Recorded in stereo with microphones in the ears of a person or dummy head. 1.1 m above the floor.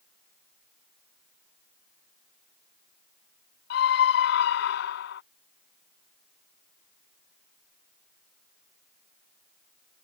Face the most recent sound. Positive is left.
turn(degrees=65)  # may be behind; listen again after turning